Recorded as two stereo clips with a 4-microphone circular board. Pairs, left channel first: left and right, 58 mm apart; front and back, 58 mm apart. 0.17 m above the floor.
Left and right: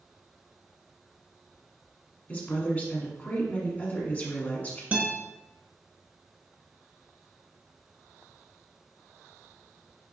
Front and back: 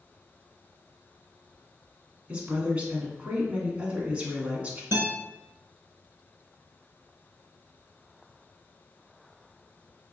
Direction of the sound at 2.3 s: 130° left.